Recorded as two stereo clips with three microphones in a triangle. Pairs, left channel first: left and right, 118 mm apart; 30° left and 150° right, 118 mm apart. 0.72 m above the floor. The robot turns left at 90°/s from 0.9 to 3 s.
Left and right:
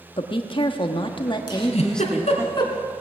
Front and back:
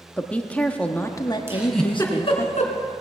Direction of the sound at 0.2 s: 105° left.